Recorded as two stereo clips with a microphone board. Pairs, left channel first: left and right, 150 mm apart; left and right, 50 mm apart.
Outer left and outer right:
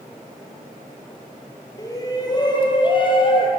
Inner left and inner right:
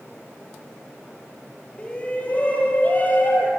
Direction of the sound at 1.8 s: 25° left (ahead or behind).